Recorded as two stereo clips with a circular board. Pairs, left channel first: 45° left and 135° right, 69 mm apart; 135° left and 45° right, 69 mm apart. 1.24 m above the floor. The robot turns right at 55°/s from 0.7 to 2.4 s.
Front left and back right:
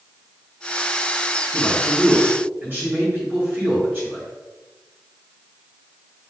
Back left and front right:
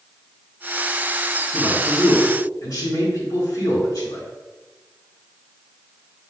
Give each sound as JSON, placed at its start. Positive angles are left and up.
{"t": 1.5, "sound": "a man speaking", "azimuth_deg": 115, "distance_m": 3.0}